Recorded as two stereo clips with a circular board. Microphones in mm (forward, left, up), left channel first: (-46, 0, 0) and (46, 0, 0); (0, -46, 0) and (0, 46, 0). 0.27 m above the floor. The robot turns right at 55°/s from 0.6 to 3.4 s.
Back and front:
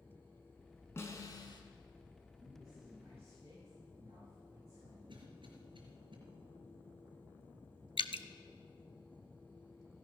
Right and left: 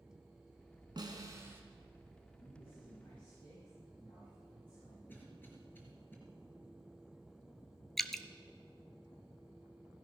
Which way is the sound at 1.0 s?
120° left.